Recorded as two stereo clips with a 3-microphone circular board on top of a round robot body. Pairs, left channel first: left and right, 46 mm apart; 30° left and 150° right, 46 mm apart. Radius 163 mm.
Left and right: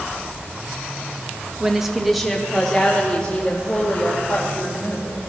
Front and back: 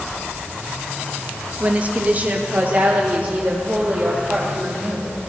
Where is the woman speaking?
150° right, 1.0 m; by 5.1 s 145° left, 2.5 m.